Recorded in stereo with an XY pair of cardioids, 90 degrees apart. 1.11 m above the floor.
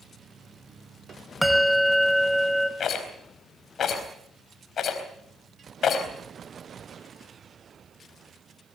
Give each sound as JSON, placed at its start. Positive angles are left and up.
{"t": 1.4, "sound": "a bell", "azimuth_deg": 0, "distance_m": 2.5}
{"t": 2.8, "sound": "a rattle", "azimuth_deg": 65, "distance_m": 4.0}